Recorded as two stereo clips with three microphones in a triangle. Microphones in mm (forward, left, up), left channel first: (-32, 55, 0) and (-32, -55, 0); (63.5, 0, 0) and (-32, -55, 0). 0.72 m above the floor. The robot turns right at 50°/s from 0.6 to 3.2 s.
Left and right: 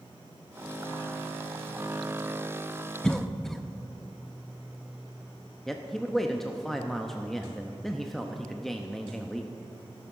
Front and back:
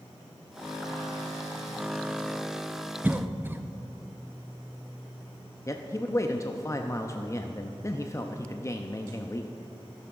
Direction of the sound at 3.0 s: 165° left.